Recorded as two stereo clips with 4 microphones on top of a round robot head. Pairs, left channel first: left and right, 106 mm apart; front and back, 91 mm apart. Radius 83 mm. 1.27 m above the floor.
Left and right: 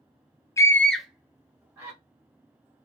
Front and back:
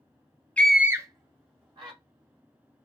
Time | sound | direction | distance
0.6 | a scream | 65° left | 0.6 m